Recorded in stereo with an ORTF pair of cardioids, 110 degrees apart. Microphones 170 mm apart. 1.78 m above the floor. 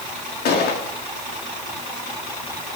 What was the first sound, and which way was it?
A gunshot, 65° left.